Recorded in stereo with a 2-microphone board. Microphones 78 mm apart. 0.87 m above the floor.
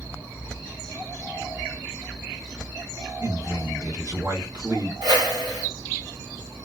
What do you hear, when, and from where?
3.2 s a man speaking: 50° right (ahead or behind), 1.0 m
5.0 s a whoosh: 70° right (ahead or behind), 1.1 m